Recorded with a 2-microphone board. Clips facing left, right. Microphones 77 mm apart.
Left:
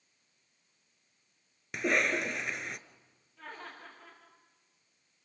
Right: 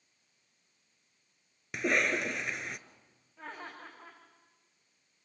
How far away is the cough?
About 1.2 m.